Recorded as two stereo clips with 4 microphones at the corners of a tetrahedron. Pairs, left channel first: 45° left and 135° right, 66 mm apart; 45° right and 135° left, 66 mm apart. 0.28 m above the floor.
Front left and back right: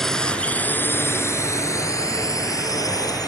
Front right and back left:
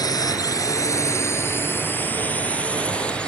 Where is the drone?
40° right; by 3.3 s 30° left.